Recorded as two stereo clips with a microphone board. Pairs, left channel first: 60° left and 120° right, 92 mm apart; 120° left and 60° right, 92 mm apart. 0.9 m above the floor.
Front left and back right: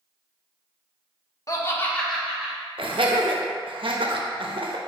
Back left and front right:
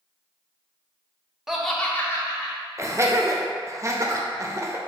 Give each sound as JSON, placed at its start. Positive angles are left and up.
{"t": 1.5, "sound": "laughter", "azimuth_deg": 20, "distance_m": 0.7}
{"t": 2.8, "sound": "laughter", "azimuth_deg": -115, "distance_m": 0.7}